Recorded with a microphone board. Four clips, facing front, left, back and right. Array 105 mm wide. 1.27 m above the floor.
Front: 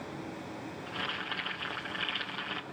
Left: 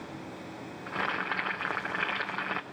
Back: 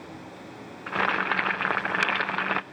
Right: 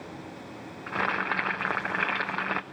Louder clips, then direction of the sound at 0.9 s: Right 4 dB, back 15 dB; 165° right.